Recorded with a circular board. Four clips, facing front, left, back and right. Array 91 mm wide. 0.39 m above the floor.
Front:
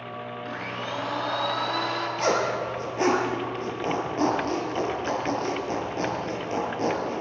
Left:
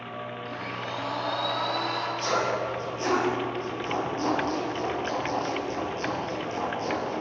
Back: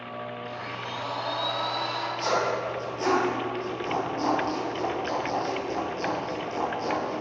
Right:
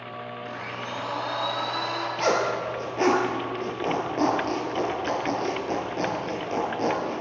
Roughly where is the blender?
Ahead.